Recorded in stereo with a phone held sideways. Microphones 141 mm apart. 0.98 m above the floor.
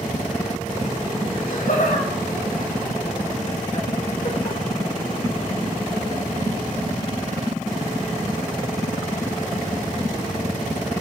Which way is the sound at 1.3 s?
75° left (ahead or behind).